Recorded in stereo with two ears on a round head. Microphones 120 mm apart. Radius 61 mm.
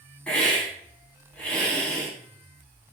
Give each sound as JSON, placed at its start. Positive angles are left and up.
{"t": 0.3, "sound": "a hiss", "side_deg": 10, "distance_m": 3.5}